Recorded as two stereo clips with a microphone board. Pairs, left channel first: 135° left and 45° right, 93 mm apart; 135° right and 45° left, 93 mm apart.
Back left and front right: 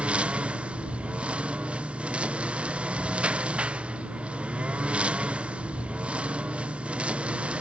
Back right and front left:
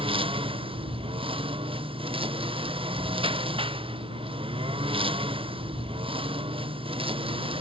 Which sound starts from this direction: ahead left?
A lawn mower, at 0.0 s.